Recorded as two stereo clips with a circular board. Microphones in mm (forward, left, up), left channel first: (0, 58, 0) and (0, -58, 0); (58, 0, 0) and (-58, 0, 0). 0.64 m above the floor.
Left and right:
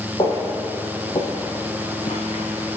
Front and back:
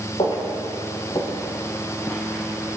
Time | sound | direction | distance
0.2 | footsteps | 40° left | 3 m